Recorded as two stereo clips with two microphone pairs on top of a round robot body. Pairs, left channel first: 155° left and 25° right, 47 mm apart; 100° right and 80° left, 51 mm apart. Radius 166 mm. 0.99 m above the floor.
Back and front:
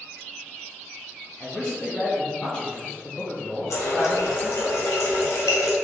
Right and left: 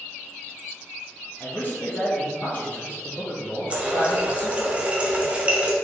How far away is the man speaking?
About 1.0 m.